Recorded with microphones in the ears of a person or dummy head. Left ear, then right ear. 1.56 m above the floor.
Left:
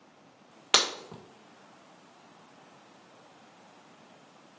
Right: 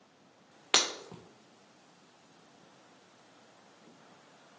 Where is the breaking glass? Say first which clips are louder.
Left 3 dB; centre (ahead or behind), 1.6 m.